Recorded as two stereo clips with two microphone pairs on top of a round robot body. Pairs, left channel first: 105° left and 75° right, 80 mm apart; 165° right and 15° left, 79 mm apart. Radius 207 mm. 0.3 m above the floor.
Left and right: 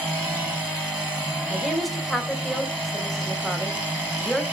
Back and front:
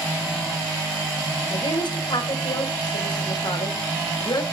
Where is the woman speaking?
165° right, 2.5 m.